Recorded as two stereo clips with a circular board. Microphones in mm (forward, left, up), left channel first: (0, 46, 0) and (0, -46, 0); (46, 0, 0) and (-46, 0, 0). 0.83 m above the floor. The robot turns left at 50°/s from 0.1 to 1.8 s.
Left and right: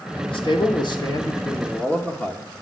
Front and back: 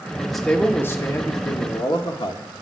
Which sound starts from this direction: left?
A man speaking, at 0.3 s.